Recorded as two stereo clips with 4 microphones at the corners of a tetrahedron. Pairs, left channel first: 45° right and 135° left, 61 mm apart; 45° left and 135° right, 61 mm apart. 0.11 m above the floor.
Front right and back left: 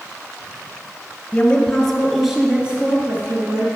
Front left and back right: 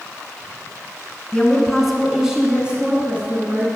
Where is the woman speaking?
20° right, 1.2 m; by 3.7 s 175° left, 1.7 m.